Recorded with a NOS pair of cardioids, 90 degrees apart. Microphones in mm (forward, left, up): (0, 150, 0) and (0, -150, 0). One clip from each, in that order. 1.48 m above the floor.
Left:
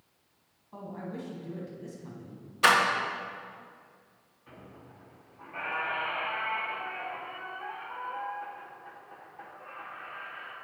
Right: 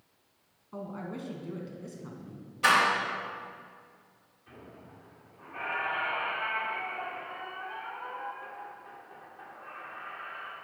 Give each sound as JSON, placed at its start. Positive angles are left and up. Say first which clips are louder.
{"t": 0.7, "sound": "a man speaking", "louder": "right 1 dB", "azimuth_deg": -10, "distance_m": 1.6}
{"t": 2.6, "sound": "a door slam", "louder": "left 1 dB", "azimuth_deg": 45, "distance_m": 1.0}
{"t": 4.5, "sound": "a squeak", "louder": "even", "azimuth_deg": 30, "distance_m": 2.0}